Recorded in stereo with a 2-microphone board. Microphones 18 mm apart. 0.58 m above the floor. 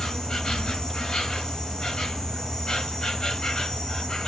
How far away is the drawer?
I don't hear a drawer.